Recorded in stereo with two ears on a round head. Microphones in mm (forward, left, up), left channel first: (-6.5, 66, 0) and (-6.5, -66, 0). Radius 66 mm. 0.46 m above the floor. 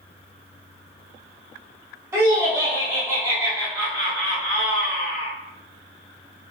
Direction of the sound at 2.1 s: 20° right (ahead or behind).